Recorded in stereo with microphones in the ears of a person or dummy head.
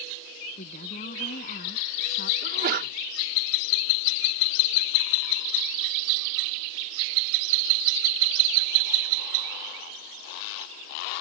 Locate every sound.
0.6 s a woman speaking: 45° left (ahead or behind)
2.4 s a sneeze: 50° right (ahead or behind)